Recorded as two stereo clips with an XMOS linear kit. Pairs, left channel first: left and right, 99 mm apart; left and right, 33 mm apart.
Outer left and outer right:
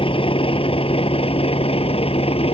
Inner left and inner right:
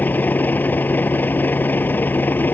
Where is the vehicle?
65° left (ahead or behind); by 2.6 s 75° left (ahead or behind).